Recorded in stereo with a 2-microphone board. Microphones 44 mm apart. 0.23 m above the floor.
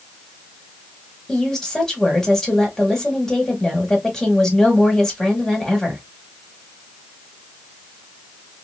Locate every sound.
1.3 s a woman speaking: 15° left (ahead or behind), 1.3 m